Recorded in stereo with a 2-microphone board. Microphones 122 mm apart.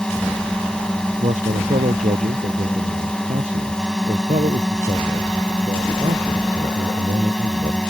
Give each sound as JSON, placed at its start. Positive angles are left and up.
{"t": 0.0, "sound": "a drone", "side_deg": 5}
{"t": 1.2, "sound": "a man speaking", "side_deg": -85}